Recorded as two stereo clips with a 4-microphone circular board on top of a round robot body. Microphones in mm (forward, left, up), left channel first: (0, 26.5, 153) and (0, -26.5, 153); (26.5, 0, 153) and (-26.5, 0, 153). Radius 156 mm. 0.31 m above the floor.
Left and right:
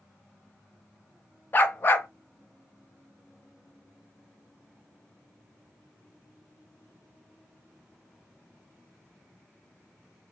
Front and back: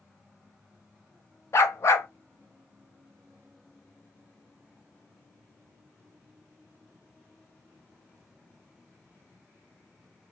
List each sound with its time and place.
1.5 s a dog barking: 40° left, 0.5 m